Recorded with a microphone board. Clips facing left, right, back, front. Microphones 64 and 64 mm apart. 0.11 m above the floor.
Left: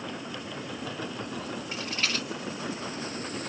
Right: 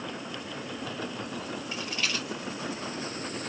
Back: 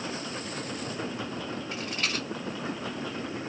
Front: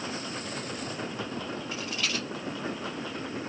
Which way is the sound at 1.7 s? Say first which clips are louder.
Left 1 dB, back 1 dB; 145° left.